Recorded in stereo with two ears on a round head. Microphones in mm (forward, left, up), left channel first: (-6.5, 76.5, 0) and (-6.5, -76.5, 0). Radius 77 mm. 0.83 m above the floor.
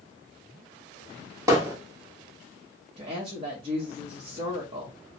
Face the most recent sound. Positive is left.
turn(degrees=-35)  # may be behind; listen again after turning